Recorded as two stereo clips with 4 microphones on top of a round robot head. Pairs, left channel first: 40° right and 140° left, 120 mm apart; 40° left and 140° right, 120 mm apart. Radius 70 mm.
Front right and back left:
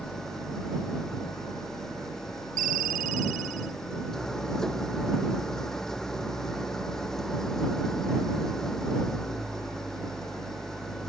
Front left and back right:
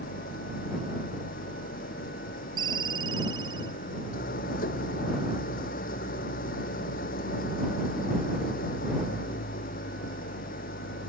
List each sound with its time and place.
0.0 s an engine running: 45° left
2.6 s a ringtone: 160° left